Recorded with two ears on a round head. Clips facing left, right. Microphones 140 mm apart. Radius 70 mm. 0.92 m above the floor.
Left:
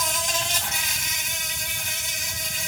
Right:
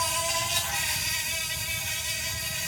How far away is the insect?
About 4 m.